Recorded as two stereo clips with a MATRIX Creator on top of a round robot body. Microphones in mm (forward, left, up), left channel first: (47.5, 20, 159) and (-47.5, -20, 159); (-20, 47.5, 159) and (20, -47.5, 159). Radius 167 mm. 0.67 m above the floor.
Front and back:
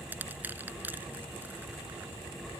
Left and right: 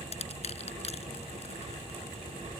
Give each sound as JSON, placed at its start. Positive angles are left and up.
{"t": 0.1, "sound": "crushing", "azimuth_deg": 130}